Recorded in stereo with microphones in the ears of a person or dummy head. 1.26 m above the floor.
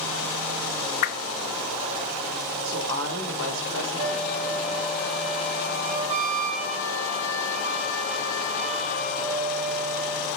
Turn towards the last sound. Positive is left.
turn(degrees=-35)  # may be behind; listen again after turning